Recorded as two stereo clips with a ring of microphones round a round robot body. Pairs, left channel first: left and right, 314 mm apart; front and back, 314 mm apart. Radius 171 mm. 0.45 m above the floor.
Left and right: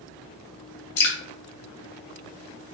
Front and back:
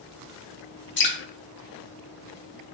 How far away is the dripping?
About 1.2 m.